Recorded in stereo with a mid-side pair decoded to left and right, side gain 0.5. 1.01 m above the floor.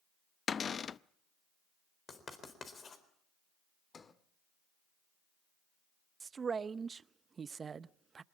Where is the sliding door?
35° left, 1.5 m.